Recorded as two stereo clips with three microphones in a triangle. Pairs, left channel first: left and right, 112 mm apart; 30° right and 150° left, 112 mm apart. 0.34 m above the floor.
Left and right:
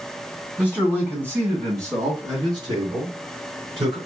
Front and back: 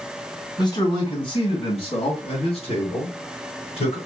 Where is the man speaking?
10° right, 2 m; by 4.0 s 50° right, 4.5 m.